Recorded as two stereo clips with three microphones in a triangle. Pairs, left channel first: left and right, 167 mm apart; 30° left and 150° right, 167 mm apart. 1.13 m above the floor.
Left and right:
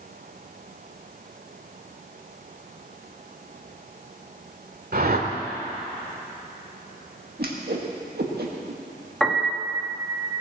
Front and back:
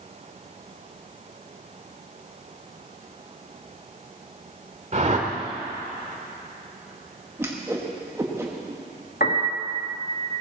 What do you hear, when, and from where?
4.9 s a whoosh: 105° right, 1.7 m
7.4 s a whoosh: 75° right, 1.7 m
9.2 s a piano: straight ahead, 1.6 m